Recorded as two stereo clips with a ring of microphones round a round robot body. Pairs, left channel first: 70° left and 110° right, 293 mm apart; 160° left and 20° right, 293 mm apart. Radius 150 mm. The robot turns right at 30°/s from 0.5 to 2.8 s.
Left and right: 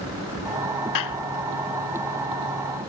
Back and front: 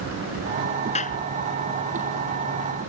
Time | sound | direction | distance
0.9 | a clap | 90° left | ?